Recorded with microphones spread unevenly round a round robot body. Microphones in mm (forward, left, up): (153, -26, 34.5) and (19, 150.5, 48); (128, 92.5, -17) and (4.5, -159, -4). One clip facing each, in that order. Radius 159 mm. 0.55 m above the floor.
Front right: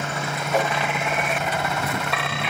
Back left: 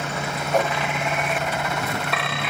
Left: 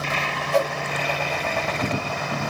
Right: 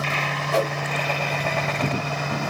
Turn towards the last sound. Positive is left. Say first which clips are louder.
# back left 1 dB, left 1 dB
turn(degrees=-135)